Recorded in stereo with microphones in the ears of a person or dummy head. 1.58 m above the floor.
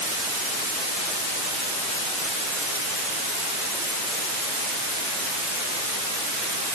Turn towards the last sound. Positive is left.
No sound to turn to.